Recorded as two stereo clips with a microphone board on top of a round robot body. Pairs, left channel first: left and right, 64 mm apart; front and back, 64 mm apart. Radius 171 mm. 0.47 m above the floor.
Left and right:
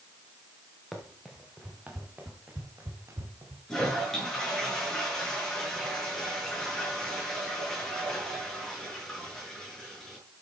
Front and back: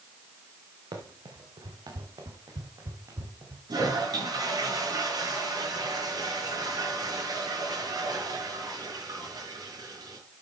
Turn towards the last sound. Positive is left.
turn(degrees=170)